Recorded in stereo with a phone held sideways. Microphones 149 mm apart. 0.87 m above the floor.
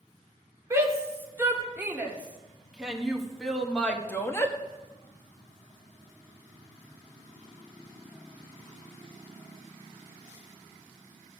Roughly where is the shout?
Centre.